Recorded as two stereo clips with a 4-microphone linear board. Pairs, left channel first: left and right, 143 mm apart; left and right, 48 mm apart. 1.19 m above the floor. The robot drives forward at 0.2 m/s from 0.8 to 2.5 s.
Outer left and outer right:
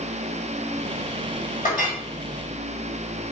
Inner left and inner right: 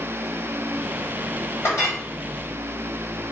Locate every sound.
1.6 s a clink: 85° left, 3.5 m